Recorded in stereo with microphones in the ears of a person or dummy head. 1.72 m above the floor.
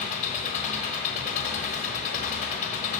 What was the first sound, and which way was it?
An engine running, 40° left (ahead or behind).